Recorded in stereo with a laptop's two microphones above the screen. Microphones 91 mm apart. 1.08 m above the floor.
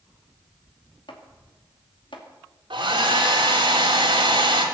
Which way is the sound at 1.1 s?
70° left (ahead or behind).